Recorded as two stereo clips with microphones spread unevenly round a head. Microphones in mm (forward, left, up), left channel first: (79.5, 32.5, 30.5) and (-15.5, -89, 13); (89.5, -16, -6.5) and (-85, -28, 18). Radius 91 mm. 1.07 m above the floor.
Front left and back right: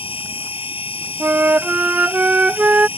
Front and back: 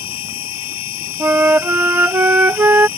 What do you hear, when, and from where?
0.0 s a machine running: straight ahead
1.2 s a flute: 145° left